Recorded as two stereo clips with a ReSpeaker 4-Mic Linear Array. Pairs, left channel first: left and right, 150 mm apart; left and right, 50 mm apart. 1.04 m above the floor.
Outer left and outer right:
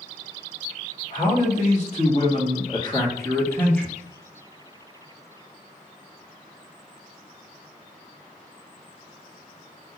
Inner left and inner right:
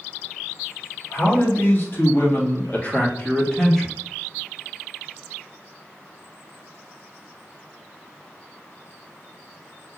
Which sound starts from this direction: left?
A man speaking, at 1.1 s.